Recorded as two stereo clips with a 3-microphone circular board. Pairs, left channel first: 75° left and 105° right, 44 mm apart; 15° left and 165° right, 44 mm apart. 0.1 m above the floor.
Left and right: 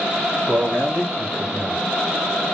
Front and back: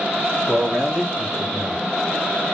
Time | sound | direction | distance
0.5 | a man speaking | 75° right | 3.5 m